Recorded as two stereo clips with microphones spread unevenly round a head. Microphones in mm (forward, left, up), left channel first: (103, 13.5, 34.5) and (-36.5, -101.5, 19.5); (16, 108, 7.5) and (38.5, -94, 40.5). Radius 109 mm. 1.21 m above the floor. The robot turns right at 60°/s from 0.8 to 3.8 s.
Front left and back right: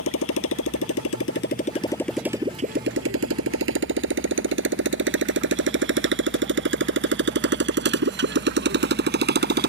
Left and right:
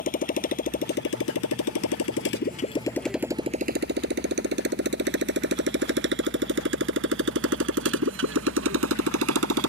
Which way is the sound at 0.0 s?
45° left.